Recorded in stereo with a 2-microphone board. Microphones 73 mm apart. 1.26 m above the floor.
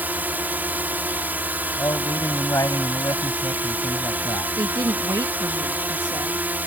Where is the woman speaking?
65° right (ahead or behind).